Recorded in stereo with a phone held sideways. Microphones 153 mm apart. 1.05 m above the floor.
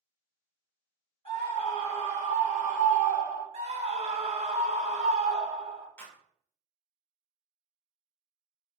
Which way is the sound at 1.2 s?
40° left (ahead or behind).